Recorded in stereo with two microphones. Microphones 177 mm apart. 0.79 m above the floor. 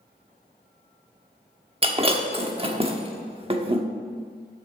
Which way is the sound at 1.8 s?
35° right (ahead or behind).